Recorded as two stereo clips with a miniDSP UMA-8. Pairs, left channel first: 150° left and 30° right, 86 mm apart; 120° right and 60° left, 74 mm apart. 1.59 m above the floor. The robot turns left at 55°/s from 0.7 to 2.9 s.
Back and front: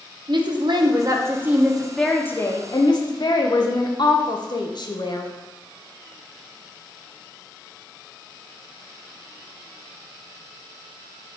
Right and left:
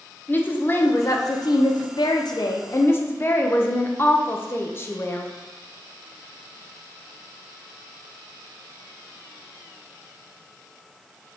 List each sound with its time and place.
0.3 s a woman speaking: 55° right, 0.6 m; by 5.3 s straight behind, 0.6 m